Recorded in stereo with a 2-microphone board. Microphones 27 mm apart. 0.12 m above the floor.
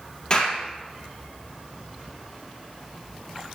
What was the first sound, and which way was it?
A clap, 30° left (ahead or behind).